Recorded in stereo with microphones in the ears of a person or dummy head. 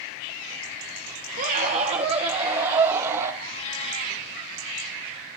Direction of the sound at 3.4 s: 35° left (ahead or behind).